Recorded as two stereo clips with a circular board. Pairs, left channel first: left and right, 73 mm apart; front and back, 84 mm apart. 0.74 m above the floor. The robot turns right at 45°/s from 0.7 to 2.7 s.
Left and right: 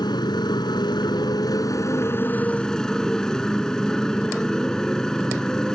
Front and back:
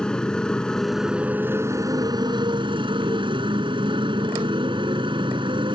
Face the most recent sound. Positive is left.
turn(degrees=170)